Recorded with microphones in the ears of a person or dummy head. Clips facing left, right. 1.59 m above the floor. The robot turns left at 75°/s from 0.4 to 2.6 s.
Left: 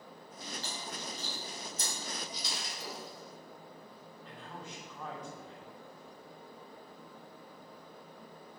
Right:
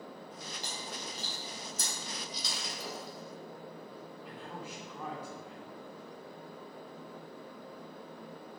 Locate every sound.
0.6 s chewing: 15° right (ahead or behind), 4.5 m; by 1.9 s 65° right (ahead or behind), 4.5 m
2.3 s breaking glass: 65° right (ahead or behind), 3 m; by 3.4 s 70° right (ahead or behind), 3 m
4.2 s a man speaking: 10° right (ahead or behind), 4 m